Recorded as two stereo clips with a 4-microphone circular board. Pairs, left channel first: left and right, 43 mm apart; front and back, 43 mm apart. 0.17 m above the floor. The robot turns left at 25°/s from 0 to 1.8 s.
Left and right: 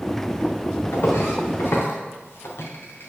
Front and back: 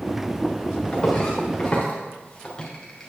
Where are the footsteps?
75° left, 2.5 m; by 3.1 s 80° left, 2.0 m.